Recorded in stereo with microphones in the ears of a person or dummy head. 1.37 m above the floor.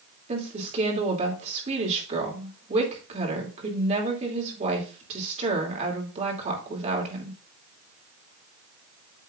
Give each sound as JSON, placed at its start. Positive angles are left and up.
{"t": 0.3, "sound": "a woman speaking", "side_deg": -35, "distance_m": 3.0}